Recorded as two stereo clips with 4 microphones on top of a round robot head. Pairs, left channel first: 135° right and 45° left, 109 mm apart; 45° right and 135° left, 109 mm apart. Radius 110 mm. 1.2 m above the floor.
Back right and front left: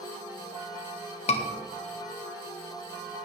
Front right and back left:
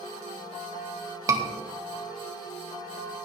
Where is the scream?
165° right, 2 m.